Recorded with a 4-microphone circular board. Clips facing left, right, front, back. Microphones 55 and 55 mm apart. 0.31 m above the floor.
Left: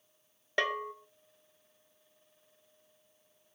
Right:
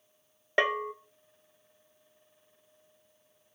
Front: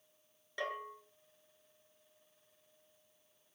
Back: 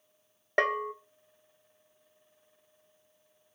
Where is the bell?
160° right, 0.7 m.